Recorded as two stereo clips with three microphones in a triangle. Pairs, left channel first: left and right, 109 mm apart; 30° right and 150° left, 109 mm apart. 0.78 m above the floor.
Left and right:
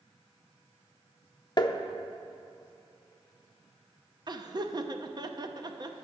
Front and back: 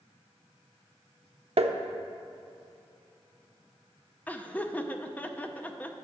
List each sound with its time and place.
1.6 s tapping: 135° left, 0.5 m
4.3 s laughter: 100° right, 0.7 m